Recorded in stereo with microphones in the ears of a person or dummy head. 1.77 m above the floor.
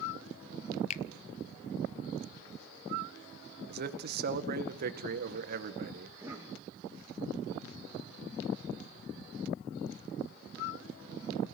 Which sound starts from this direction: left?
A finger snap, at 0.9 s.